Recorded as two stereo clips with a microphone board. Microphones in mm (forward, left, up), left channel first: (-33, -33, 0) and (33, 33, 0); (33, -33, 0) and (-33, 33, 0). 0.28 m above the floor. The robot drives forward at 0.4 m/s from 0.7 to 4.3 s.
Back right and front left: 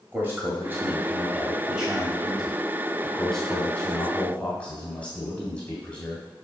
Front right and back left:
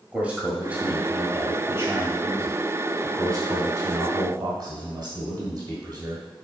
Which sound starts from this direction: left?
A man speaking, at 0.1 s.